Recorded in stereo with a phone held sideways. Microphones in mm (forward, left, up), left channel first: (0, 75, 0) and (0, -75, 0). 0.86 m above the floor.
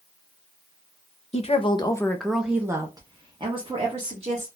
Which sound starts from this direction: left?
A woman speaking, at 1.3 s.